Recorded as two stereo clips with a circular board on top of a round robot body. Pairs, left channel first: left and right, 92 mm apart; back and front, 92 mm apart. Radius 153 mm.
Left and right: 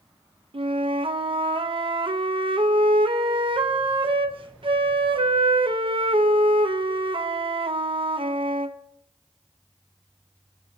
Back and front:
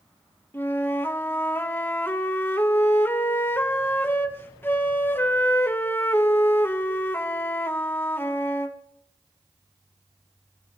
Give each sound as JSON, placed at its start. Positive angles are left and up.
{"t": 0.5, "sound": "a flute", "azimuth_deg": -115, "distance_m": 1.4}